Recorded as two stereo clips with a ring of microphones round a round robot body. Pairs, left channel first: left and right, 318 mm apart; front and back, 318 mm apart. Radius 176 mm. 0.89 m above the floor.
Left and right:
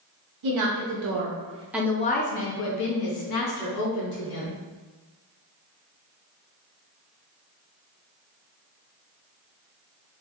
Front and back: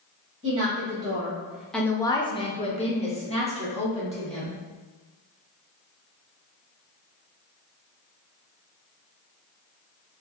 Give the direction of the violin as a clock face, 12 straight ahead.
No violin in this recording.